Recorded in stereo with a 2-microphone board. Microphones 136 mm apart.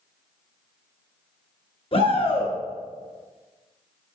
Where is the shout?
45° left (ahead or behind), 1.8 m.